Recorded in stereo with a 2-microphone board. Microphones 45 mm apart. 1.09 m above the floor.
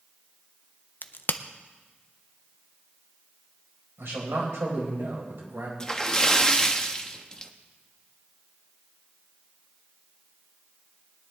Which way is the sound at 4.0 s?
80° right.